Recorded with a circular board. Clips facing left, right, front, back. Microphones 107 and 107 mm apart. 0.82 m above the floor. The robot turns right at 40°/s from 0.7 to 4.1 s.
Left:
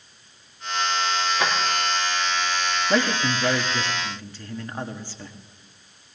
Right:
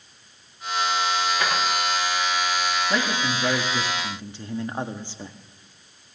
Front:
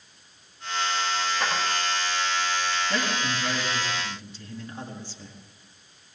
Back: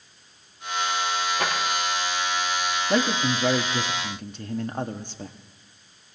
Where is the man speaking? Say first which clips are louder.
Left 2 dB, back 5 dB; 155° left, 1.2 m; by 5.4 s 160° right, 1.2 m.